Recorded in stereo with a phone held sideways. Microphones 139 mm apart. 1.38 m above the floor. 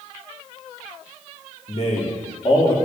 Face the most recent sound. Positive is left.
turn(degrees=35)  # may be behind; listen again after turning